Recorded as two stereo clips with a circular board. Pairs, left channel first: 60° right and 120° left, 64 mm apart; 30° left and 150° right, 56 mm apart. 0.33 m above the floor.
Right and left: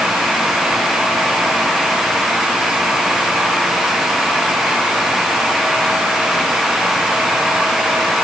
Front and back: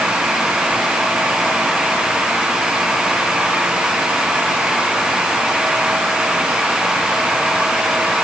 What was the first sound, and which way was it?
Only background noise.